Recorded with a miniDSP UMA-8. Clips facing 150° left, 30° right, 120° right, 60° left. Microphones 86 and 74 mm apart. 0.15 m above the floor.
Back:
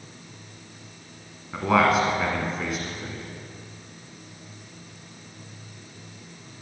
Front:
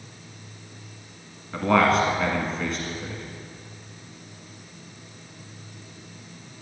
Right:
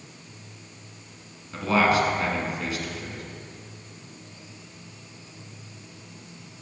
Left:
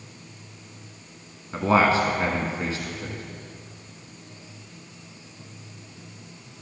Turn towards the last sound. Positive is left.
turn(degrees=70)